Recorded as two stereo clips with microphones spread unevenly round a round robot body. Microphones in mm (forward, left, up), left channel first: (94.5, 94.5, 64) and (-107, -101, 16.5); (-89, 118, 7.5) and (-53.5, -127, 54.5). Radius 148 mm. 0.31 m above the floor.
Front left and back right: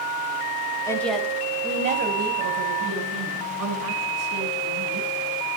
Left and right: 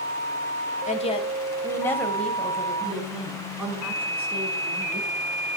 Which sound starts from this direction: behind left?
A woman speaking, at 0.9 s.